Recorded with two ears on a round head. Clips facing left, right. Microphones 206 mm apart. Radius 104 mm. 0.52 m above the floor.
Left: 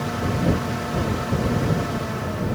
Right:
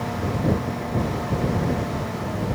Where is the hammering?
I don't hear hammering.